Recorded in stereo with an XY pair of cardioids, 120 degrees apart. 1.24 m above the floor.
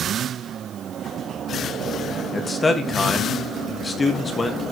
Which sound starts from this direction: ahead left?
A man speaking, at 2.3 s.